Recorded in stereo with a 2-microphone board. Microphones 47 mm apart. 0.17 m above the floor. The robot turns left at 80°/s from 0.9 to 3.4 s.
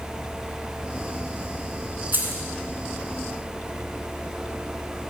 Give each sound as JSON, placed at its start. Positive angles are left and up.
{"t": 2.1, "sound": "keys jangling", "side_deg": -45, "distance_m": 1.5}